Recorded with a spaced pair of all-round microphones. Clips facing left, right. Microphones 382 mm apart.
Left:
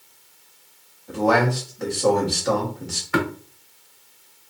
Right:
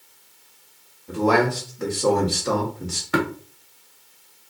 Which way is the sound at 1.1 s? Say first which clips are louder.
Right 1 dB; 15° right (ahead or behind).